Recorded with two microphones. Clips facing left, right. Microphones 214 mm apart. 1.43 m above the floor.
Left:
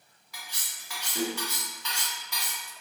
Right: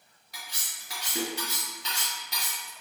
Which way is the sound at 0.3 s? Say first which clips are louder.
Even; 40° right (ahead or behind).